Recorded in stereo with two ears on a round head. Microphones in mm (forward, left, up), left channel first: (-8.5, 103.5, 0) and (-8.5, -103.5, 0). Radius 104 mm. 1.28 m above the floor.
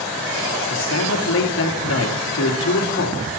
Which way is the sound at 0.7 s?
60° left (ahead or behind).